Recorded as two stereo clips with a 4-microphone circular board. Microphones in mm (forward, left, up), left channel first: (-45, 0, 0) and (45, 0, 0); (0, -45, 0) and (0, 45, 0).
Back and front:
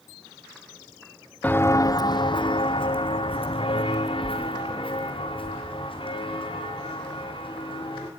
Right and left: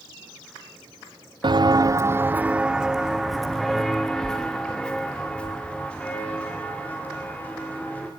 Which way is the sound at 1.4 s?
110° left.